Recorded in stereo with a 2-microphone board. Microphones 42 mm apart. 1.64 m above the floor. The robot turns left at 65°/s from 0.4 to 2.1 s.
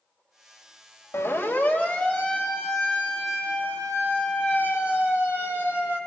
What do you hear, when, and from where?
1.1 s a siren: 80° left, 5 m; by 6.0 s 55° left (ahead or behind), 8.5 m